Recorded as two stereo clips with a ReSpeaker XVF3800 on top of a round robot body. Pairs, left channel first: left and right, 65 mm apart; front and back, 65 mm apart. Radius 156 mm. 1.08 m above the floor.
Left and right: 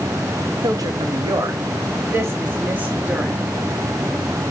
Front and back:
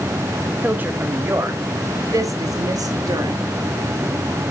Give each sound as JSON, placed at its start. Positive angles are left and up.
{"t": 0.6, "sound": "a woman speaking", "azimuth_deg": -115, "distance_m": 1.5}